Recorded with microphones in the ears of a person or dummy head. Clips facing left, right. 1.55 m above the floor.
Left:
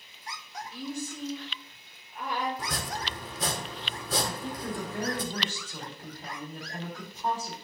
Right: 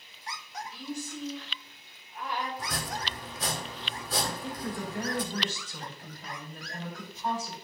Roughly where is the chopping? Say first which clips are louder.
Left 1 dB; left.